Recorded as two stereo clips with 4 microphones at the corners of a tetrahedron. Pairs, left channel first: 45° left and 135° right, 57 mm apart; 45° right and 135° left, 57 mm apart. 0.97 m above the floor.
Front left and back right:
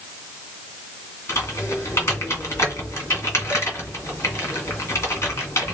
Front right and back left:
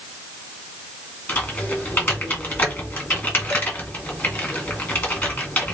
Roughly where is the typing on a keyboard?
Ahead.